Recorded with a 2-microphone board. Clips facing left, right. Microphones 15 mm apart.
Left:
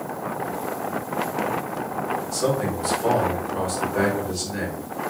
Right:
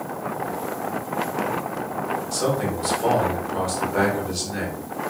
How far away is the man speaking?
About 1.3 m.